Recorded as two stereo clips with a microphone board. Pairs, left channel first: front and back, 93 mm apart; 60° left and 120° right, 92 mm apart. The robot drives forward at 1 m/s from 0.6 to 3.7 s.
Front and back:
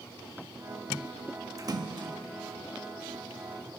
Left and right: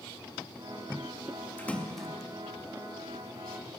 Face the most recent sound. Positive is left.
turn(degrees=170)